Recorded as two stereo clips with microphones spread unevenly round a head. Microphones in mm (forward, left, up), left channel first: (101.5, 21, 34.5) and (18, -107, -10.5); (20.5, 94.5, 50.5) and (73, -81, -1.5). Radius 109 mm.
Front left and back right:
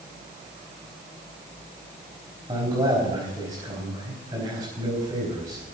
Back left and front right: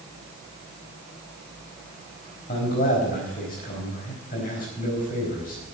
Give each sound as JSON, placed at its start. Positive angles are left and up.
{"t": 2.5, "sound": "a man speaking", "azimuth_deg": 160, "distance_m": 4.5}